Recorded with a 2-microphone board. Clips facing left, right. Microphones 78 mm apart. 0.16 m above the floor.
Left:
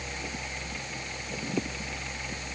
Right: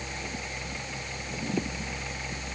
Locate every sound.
Only background noise.